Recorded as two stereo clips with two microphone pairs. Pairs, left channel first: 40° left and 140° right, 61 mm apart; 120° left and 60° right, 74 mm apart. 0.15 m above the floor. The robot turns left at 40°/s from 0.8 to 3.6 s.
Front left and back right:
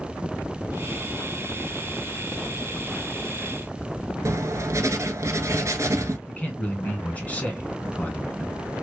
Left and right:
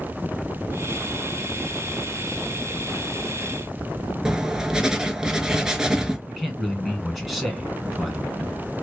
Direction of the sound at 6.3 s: 30° left.